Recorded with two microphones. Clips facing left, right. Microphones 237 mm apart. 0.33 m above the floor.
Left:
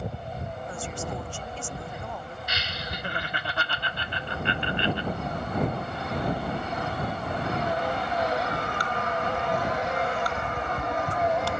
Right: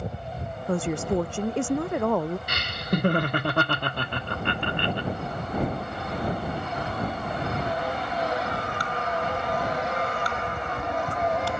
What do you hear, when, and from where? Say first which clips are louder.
0.7 s a woman speaking: right 12 dB; 65° right (ahead or behind); by 2.4 s 70° right (ahead or behind)
2.5 s laughter: right 9 dB; 55° right (ahead or behind)